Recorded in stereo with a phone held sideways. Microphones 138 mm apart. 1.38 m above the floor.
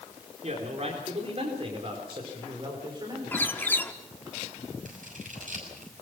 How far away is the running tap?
No running tap in this recording.